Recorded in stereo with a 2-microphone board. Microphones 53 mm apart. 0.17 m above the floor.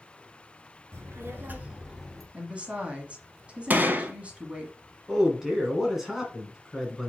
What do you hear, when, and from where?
0.9 s a child speaking: 65° right (ahead or behind), 1.4 m; by 2.2 s 10° left (ahead or behind), 1.6 m
2.3 s a woman speaking: 25° right (ahead or behind), 1.3 m
3.7 s a gunshot: 35° right (ahead or behind), 0.7 m
5.1 s a man speaking: 5° right (ahead or behind), 1.8 m